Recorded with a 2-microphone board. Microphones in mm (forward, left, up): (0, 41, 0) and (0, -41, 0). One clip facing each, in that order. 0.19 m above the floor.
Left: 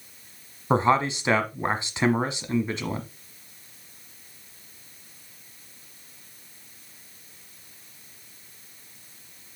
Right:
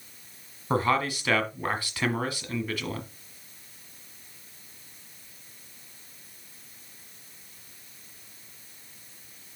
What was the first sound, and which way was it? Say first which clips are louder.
A man speaking: left 4 dB; 25° left (ahead or behind).